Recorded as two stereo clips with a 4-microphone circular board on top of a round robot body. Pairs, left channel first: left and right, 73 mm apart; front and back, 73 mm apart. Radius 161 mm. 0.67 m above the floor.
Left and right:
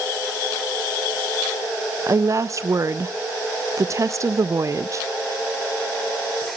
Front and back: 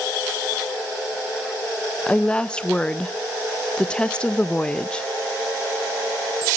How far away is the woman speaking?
About 0.5 m.